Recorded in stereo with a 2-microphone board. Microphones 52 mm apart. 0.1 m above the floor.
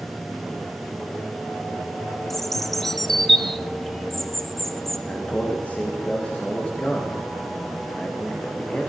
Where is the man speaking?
25° left (ahead or behind), 9 m.